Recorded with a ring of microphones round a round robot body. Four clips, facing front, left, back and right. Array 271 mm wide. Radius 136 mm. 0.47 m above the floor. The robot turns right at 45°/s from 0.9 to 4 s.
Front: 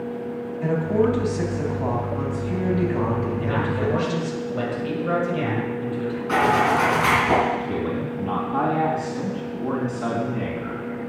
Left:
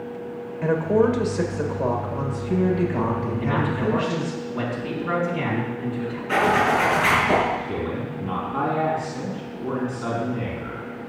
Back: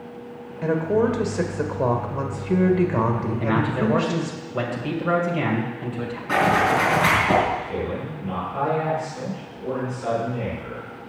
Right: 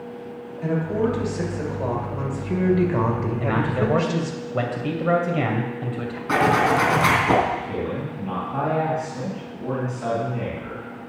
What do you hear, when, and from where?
0.6 s a woman speaking: 125° left, 1.9 m; by 4.4 s 95° right, 1.9 m
3.4 s a man speaking: 135° right, 2.5 m; by 6.2 s 105° right, 2.5 m
6.3 s a zipper: 90° right, 3.5 m
7.6 s a man speaking: 15° right, 3.5 m